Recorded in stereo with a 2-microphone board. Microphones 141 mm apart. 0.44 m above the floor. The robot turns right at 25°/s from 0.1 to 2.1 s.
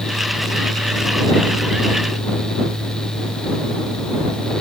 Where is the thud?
No thud in this recording.